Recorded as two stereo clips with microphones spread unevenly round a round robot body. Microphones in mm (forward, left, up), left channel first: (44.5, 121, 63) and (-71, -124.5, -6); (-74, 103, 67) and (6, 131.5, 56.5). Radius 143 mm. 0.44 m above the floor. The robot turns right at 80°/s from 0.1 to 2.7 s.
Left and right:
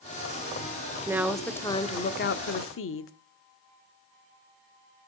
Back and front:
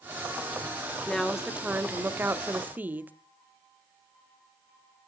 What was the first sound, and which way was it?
A woman speaking, 75° right.